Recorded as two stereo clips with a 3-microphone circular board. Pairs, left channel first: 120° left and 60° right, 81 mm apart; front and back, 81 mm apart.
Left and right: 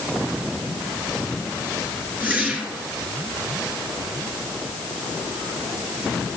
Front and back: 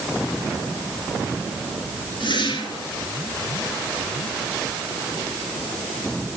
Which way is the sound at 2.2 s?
10° left.